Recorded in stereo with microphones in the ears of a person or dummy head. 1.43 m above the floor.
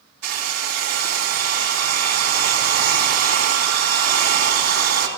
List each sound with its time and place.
0.2 s a hair dryer: 90° right, 3 m